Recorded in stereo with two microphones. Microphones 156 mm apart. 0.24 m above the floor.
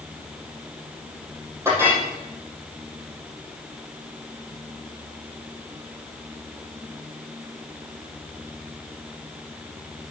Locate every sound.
1.6 s a clink: 15° right (ahead or behind), 4.5 m